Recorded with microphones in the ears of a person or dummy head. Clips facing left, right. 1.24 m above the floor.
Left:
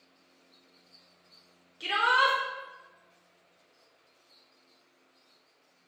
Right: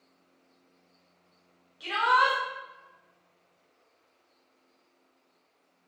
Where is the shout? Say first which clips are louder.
Right 2 dB; 35° left (ahead or behind), 0.7 m.